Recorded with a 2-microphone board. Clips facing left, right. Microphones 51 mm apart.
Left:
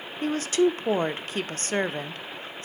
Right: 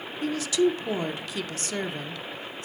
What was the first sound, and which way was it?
A woman speaking, 40° left (ahead or behind).